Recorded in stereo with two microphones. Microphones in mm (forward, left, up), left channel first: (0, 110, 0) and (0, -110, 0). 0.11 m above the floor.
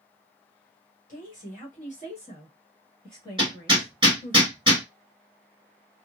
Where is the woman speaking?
40° left (ahead or behind), 1.7 m; by 4.4 s 10° left (ahead or behind), 1.7 m.